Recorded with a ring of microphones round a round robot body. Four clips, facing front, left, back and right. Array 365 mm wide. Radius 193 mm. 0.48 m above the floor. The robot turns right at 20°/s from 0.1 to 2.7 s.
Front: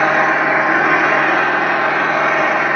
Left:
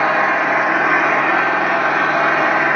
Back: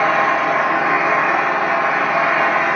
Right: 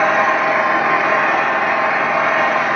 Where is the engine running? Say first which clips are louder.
Right 1 dB, front 1 dB; 5° left, 1.9 m; by 2.8 s 60° left, 1.9 m.